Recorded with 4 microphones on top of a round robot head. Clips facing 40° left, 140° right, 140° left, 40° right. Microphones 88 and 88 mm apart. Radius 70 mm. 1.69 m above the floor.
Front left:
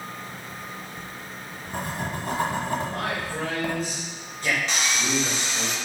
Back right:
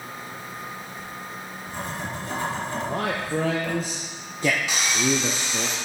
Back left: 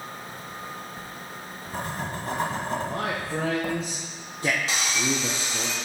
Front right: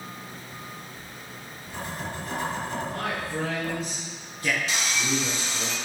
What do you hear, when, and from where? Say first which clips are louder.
0.3 s writing: back right 2 dB, back left 3 dB; 90° left, 1.2 m
2.9 s a man speaking: back right 3 dB, back left 2 dB; 155° right, 0.7 m
4.7 s sawing: back right 2 dB, back left 1 dB; 140° left, 1.6 m